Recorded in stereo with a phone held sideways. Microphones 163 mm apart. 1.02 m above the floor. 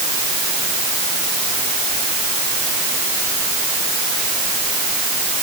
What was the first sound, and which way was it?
Only background noise.